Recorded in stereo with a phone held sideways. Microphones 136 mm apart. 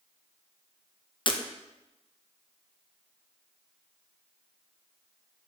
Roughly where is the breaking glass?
Left.